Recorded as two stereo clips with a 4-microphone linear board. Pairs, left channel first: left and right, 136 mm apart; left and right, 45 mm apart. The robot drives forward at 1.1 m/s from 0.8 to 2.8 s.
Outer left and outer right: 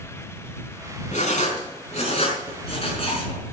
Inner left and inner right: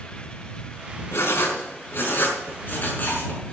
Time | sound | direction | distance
1.1 | writing | 65° left (ahead or behind) | 4 m